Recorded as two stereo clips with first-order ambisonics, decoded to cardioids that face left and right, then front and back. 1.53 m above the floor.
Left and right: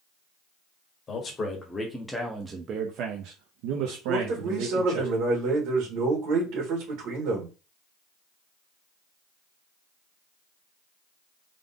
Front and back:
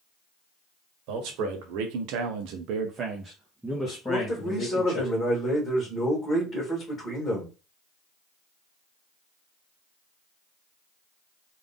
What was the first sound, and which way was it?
A man speaking, 155° left.